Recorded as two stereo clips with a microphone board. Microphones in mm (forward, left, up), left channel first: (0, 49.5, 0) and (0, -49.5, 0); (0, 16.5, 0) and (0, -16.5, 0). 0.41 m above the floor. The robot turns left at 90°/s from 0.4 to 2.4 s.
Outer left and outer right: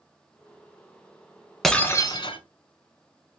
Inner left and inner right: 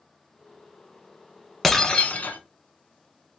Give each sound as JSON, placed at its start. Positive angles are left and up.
{"t": 1.6, "sound": "breaking glass", "azimuth_deg": 175, "distance_m": 0.9}